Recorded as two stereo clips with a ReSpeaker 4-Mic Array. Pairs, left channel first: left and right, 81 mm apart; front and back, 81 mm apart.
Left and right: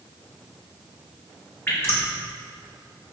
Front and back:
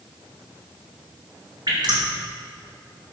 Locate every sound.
1.7 s dripping: 150° left, 3 m